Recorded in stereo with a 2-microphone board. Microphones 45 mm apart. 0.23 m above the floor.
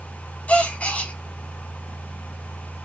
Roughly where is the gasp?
Left.